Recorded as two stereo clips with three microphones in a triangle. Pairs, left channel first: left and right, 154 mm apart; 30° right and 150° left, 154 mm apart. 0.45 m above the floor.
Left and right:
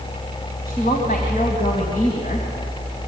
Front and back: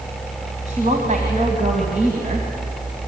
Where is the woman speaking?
115° left, 3 m.